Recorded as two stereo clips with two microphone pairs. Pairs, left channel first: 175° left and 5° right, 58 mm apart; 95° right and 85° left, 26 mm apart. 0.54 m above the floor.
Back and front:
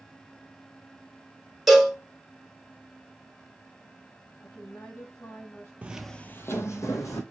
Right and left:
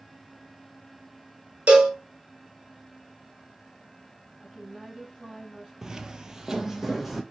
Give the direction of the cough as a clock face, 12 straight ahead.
No cough in this recording.